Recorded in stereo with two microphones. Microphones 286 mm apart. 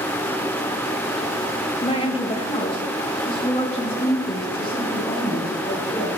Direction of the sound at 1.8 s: 20° left (ahead or behind).